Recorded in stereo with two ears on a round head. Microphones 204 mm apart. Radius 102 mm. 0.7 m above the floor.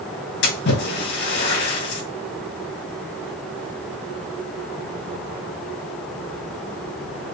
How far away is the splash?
About 3.5 m.